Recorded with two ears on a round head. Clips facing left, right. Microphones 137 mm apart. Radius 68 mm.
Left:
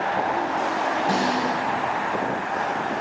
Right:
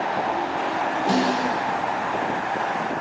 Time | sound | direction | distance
1.1 | a snare drum | 40° right (ahead or behind) | 3 m